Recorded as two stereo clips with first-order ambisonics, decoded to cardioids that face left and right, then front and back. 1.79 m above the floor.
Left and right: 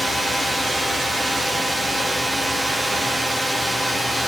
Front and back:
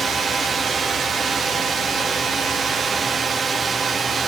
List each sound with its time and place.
0.0 s a drone: 160° right